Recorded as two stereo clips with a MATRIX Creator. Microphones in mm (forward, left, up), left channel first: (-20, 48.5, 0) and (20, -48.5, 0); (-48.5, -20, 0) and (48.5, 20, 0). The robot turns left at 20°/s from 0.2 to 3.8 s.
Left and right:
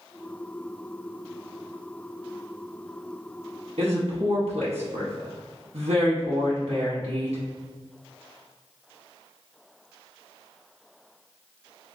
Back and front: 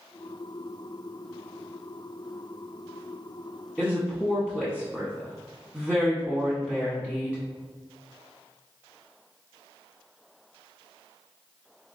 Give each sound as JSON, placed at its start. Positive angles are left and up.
{"t": 3.8, "sound": "a woman speaking", "azimuth_deg": -75, "distance_m": 0.9}